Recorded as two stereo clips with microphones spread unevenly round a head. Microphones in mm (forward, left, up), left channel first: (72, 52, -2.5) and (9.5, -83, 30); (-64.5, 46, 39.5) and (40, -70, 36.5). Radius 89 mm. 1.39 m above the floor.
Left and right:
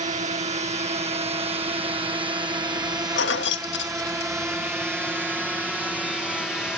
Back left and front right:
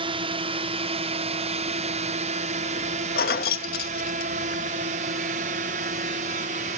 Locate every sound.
0.0 s a drone: 85° right; by 6.8 s 20° right
3.2 s keys jangling: 100° left